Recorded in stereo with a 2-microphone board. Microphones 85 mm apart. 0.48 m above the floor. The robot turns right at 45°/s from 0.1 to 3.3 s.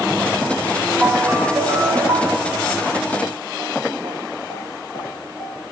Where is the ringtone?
165° right, 1.4 m; by 2.5 s 95° right, 1.4 m.